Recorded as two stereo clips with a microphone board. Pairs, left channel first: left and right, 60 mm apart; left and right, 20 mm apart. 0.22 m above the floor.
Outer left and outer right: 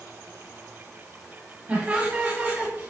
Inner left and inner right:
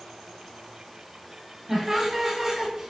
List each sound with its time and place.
1.7 s laughter: 25° right (ahead or behind), 1.4 m; by 2.9 s 35° right (ahead or behind), 1.3 m